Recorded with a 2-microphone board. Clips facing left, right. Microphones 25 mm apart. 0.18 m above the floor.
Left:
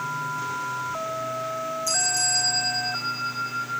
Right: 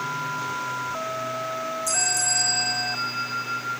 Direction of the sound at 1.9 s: 35° left (ahead or behind).